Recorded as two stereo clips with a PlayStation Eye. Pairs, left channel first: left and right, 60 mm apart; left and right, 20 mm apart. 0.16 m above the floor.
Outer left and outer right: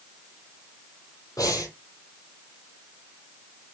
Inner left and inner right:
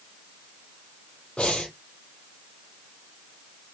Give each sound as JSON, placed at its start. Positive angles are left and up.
{"t": 1.4, "sound": "breathing", "side_deg": 75, "distance_m": 2.0}